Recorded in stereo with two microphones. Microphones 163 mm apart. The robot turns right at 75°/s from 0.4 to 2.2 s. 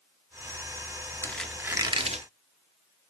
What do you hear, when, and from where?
1.2 s a squeak: 160° left, 0.8 m; by 2.3 s 125° right, 0.8 m